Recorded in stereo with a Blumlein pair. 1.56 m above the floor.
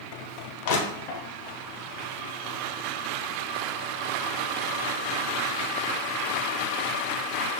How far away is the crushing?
About 1.0 m.